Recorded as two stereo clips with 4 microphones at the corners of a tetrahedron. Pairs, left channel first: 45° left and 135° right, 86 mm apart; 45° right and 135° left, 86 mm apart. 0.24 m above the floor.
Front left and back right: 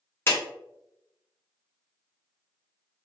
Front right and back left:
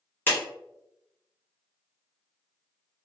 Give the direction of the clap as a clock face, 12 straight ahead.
12 o'clock.